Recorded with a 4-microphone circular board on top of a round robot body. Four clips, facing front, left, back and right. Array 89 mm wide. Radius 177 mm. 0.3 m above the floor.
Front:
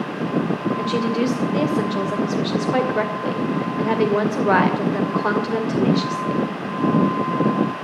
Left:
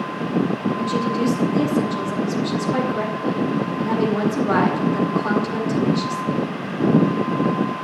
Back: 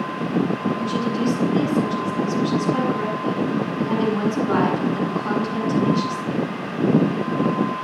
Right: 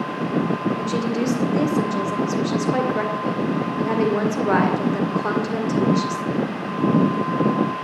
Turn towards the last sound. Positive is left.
turn(degrees=-15)